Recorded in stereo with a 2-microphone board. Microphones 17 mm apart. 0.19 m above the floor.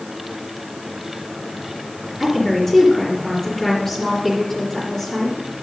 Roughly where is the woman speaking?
Left.